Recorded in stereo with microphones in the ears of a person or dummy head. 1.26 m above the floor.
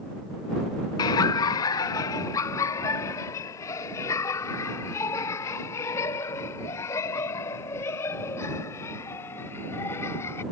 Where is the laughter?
20° left (ahead or behind); by 10.4 s 15° left (ahead or behind).